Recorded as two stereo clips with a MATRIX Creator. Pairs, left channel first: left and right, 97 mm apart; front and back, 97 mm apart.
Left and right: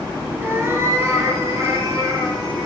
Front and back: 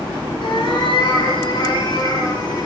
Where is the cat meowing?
25° right, 2.5 m; by 2.7 s 45° right, 3.5 m.